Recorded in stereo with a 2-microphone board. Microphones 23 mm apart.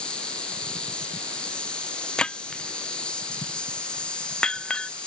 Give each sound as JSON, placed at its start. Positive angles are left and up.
{"t": 0.0, "sound": "an insect", "side_deg": 50}
{"t": 2.2, "sound": "breaking glass", "side_deg": 45}